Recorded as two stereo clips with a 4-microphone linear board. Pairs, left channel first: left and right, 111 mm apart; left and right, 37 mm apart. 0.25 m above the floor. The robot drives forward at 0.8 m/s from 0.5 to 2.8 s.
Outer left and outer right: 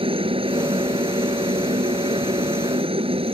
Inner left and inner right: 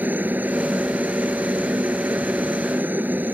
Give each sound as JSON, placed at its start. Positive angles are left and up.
{"t": 0.0, "sound": "a helicopter", "side_deg": -55}